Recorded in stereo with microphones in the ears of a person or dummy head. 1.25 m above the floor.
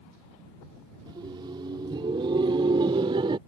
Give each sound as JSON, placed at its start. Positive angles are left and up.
{"t": 1.1, "sound": "laughter", "side_deg": -20}